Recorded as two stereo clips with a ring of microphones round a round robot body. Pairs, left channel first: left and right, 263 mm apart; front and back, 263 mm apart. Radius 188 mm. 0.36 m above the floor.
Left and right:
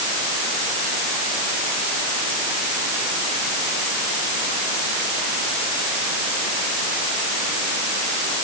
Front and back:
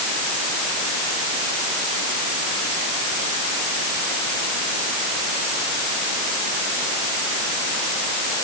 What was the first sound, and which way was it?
Only background noise.